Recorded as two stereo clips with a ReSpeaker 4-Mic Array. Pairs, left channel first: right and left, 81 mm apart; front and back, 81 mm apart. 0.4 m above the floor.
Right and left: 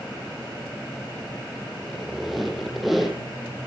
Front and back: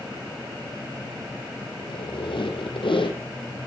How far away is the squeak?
About 3 m.